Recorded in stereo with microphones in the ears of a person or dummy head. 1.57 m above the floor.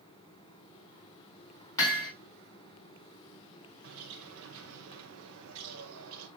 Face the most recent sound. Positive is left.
turn(degrees=-85)